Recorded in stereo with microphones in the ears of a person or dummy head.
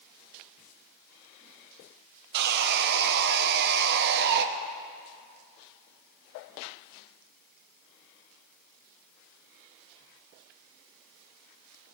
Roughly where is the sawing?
Right.